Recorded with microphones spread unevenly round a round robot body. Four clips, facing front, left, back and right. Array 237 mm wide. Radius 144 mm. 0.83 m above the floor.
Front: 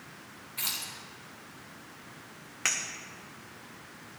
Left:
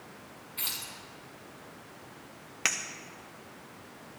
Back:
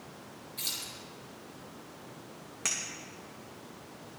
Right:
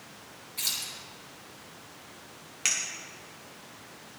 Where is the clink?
110° left, 0.6 m.